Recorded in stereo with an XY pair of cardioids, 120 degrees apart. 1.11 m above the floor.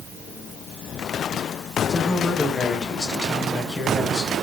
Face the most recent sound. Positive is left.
turn(degrees=20)